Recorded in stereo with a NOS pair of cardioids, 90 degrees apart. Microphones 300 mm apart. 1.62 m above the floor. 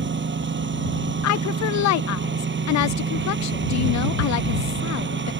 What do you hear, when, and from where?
0.0 s a lawn mower: 40° right
1.2 s a woman speaking: 65° left